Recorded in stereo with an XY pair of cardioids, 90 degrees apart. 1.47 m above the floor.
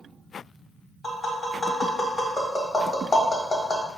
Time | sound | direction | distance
1.0 | tapping | 20° left | 1.6 m